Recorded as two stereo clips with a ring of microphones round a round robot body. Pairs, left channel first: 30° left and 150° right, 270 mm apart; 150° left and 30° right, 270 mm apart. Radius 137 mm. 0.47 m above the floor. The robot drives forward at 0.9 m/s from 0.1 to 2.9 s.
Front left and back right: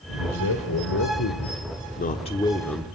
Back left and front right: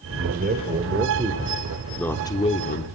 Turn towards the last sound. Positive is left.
turn(degrees=120)